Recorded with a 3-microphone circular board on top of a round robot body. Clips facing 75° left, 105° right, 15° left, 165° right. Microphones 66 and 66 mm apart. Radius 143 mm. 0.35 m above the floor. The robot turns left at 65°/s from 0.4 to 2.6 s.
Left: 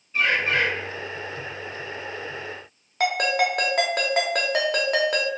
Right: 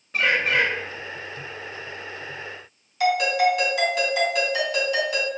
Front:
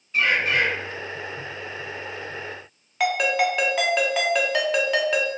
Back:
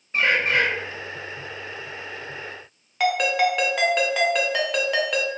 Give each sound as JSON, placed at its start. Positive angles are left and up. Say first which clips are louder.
{"t": 0.1, "sound": "a bird", "louder": "right 1 dB, back 1 dB", "azimuth_deg": -110, "distance_m": 1.0}
{"t": 3.0, "sound": "a ringtone", "louder": "right 2 dB, back 1 dB", "azimuth_deg": 100, "distance_m": 1.3}